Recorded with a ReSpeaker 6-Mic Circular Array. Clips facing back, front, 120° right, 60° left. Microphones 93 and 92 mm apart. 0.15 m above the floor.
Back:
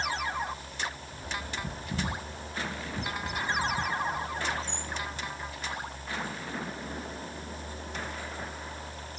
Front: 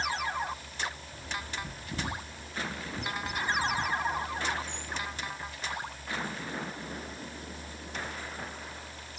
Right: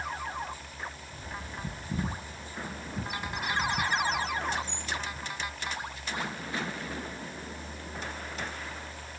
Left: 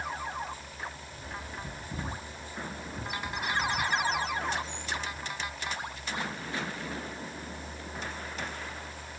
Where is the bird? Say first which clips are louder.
Back 1 dB, even; 120° right, 9 m.